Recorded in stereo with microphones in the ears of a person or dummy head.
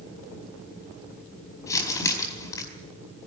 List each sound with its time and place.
1.7 s crumpling: 20° left (ahead or behind), 4.5 m